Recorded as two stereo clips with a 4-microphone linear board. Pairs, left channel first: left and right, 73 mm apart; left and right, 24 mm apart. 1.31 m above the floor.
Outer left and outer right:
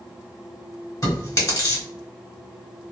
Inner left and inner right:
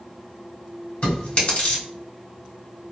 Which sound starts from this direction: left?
Chewing, at 1.0 s.